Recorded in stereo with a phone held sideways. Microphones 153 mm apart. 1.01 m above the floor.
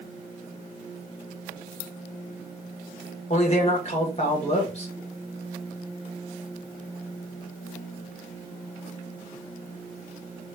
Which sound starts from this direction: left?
A man speaking, at 3.3 s.